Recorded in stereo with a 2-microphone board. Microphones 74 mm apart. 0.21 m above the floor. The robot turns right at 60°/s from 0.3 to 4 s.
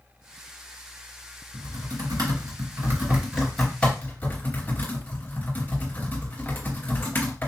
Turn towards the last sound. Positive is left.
turn(degrees=25)  # may be behind; listen again after turning